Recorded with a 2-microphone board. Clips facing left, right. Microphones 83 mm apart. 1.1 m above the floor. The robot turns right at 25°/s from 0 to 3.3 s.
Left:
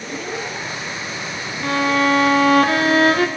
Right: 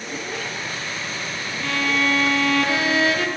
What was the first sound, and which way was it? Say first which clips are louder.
A violin: left 5 dB; 45° left.